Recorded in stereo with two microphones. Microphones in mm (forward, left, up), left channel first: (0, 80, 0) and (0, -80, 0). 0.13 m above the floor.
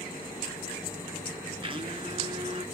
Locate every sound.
1.6 s a blender: 35° right (ahead or behind), 1.5 m